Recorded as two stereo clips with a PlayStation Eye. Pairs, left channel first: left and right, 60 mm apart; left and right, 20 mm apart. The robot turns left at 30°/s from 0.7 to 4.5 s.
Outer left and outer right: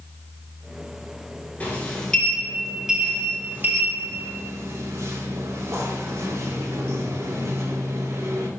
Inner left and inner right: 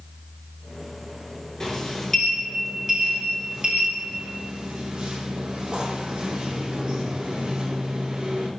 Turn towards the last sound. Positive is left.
turn(degrees=-60)